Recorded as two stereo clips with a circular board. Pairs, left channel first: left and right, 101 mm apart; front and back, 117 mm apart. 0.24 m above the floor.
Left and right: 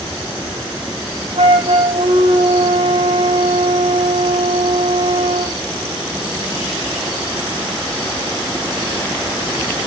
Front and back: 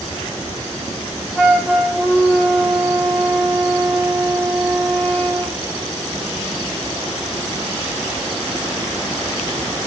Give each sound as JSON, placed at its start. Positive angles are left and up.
{"t": 1.4, "sound": "a flute", "azimuth_deg": -85, "distance_m": 5.0}